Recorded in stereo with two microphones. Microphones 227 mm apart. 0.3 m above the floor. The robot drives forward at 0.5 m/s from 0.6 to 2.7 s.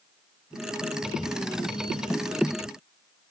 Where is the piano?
I don't hear a piano.